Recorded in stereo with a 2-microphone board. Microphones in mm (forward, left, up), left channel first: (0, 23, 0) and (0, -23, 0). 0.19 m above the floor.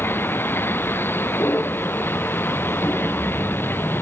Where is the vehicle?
55° left (ahead or behind).